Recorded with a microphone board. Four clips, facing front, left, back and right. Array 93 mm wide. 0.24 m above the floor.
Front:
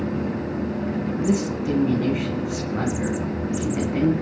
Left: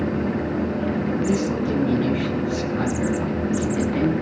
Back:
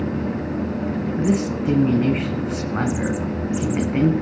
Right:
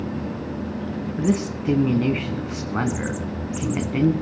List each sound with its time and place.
1.2 s a man speaking: 130° right, 2.5 m